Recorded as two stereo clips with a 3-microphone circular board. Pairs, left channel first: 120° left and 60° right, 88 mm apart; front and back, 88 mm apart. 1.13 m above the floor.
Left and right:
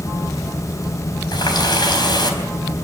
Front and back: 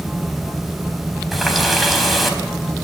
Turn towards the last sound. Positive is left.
turn(degrees=90)